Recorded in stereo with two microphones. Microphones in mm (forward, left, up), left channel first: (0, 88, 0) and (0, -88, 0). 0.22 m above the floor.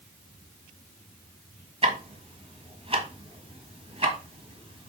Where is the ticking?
35° right (ahead or behind), 1.5 m.